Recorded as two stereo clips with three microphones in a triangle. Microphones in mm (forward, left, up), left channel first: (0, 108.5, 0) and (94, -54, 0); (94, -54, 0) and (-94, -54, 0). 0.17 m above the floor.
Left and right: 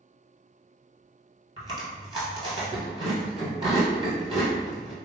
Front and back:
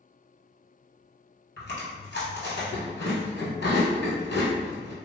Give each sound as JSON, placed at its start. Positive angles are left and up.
{"t": 1.6, "sound": "chewing", "azimuth_deg": 5, "distance_m": 1.2}